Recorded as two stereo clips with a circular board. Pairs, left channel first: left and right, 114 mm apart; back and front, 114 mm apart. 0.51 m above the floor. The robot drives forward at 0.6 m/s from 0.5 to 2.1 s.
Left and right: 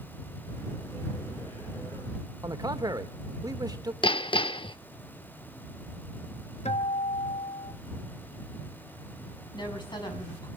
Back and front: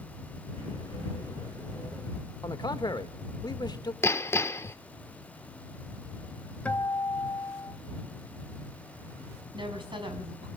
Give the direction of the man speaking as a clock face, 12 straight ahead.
5 o'clock.